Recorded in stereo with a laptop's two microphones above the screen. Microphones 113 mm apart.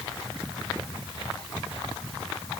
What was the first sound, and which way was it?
Only background noise.